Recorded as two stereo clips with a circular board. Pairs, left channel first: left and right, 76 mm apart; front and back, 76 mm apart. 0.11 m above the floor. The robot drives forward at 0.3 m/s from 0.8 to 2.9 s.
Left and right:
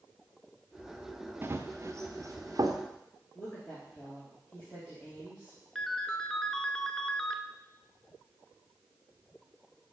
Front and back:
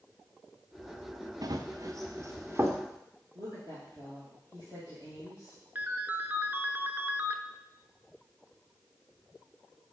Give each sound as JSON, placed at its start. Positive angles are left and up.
{"t": 1.4, "sound": "running footsteps", "azimuth_deg": -150, "distance_m": 0.8}
{"t": 3.4, "sound": "a woman speaking", "azimuth_deg": 160, "distance_m": 3.0}
{"t": 5.8, "sound": "a ringtone", "azimuth_deg": 160, "distance_m": 0.6}